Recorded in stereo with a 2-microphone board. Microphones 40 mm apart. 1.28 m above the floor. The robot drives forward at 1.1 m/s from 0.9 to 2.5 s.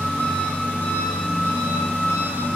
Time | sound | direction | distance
0.0 | an engine running | 60° left (ahead or behind) | 4.5 m